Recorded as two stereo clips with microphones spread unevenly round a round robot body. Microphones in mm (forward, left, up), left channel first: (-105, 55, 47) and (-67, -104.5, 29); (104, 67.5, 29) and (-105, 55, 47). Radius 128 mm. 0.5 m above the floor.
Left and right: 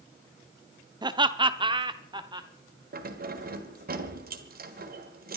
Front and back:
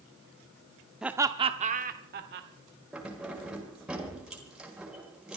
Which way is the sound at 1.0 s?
85° right.